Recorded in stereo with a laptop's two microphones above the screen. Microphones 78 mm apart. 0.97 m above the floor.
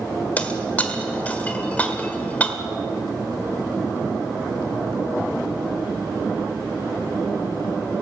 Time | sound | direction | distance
0.4 | breaking glass | 20° left (ahead or behind) | 1.6 m